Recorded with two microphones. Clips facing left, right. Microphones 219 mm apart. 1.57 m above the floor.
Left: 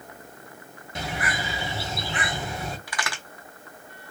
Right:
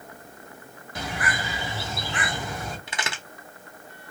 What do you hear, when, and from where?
0.9 s a bird: 25° left (ahead or behind), 1.2 m
2.9 s a crack: 25° right (ahead or behind), 0.7 m